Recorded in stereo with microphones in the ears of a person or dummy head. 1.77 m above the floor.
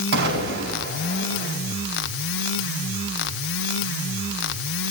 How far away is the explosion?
About 4.5 m.